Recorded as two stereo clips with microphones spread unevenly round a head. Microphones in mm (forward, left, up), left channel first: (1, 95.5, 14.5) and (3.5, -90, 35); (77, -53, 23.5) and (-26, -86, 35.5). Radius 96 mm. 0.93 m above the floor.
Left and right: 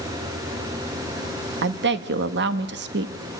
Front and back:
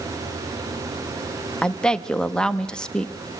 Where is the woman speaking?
60° right, 1.5 m.